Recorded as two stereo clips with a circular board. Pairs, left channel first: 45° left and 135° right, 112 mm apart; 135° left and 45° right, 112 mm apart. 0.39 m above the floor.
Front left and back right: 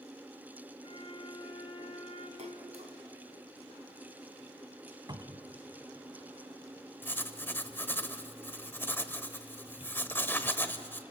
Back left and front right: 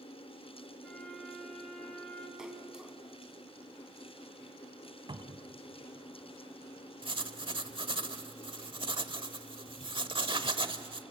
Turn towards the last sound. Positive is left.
turn(degrees=-20)